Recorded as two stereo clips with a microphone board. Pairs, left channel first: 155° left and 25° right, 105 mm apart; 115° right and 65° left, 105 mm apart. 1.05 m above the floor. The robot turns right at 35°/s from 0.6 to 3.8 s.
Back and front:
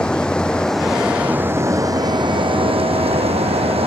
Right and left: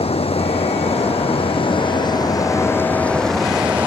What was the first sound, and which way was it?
Running water, 120° right.